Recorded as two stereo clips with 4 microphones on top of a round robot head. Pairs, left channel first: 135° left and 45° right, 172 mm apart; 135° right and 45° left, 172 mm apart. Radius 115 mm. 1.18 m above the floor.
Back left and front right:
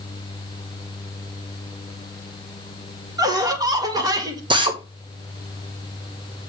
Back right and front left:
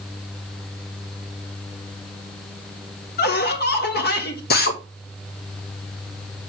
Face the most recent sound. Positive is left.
turn(degrees=-110)